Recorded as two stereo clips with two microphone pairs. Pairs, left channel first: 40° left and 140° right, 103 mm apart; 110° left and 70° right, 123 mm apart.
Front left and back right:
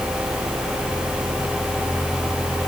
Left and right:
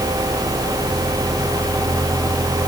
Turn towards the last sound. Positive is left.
No sound to turn to.